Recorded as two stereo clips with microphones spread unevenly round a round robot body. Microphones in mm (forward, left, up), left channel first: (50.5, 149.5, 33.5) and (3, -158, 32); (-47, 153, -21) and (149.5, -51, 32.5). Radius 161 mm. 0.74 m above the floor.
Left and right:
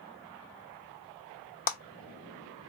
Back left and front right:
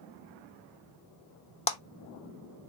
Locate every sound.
1.7 s a clap: 115° left, 0.9 m